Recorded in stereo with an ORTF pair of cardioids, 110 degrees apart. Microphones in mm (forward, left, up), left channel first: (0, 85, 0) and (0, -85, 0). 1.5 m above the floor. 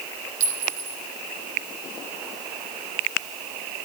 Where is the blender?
No blender in this recording.